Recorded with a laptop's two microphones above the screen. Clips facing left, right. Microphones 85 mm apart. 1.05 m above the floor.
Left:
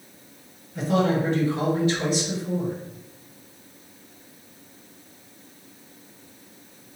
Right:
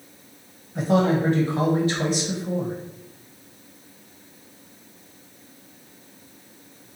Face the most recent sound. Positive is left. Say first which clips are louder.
# right 2 dB
turn(degrees=-25)  # may be behind; listen again after turning